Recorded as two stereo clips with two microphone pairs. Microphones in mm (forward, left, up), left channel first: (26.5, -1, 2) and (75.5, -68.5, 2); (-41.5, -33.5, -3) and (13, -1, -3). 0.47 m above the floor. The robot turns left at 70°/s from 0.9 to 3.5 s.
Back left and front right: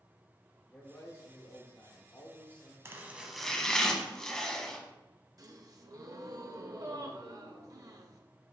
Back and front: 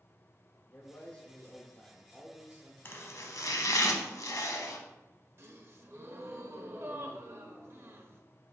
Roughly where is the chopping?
Right.